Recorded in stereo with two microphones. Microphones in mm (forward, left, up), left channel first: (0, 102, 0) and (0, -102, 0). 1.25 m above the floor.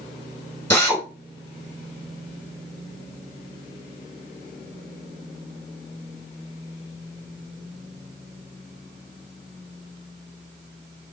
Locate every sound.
0.7 s a drill: 10° left (ahead or behind), 4 m